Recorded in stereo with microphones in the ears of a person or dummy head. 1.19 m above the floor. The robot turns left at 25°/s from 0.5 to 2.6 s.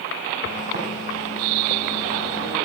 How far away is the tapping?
About 3 m.